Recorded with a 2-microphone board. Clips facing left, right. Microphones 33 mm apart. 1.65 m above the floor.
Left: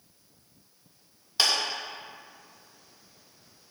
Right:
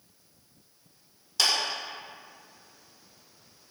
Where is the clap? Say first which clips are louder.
Left 1 dB; 25° left (ahead or behind), 2.5 m.